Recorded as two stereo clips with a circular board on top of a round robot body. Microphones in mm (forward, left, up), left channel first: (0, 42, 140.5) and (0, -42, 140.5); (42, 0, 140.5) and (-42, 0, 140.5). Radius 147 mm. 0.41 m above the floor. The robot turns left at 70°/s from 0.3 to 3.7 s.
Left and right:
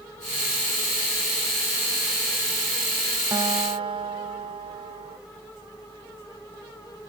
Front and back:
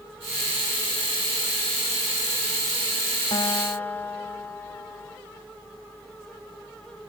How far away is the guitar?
About 0.6 m.